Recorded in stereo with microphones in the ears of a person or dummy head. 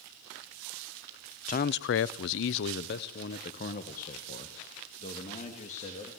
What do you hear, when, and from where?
1.5 s a man speaking: 40° left (ahead or behind), 0.6 m